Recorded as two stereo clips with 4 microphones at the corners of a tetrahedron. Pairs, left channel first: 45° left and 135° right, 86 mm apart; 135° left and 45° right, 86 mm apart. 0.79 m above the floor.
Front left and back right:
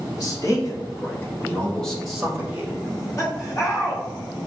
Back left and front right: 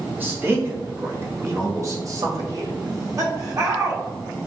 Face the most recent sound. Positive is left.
turn(degrees=0)